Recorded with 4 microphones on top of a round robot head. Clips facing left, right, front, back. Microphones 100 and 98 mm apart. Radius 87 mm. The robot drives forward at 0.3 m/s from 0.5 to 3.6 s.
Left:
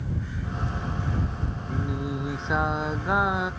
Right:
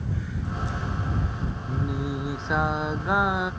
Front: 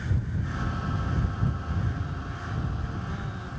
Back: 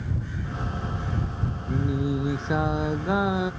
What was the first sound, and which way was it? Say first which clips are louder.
Singing: right 1 dB, back 9 dB; straight behind.